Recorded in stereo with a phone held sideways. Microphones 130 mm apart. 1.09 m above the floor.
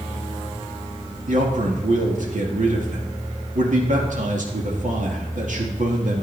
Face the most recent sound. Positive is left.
turn(degrees=-75)  # may be behind; listen again after turning